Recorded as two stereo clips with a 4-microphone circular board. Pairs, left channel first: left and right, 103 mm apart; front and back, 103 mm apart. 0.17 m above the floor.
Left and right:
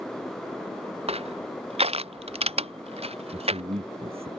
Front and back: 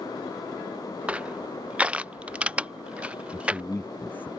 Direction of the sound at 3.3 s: 75° right.